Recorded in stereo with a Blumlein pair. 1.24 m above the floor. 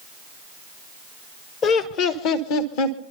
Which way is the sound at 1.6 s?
30° left.